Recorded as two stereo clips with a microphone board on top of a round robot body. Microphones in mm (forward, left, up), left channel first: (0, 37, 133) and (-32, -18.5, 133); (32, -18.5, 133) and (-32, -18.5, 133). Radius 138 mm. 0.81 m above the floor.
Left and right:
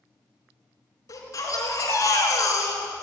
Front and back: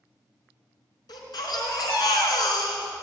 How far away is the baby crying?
About 3.5 m.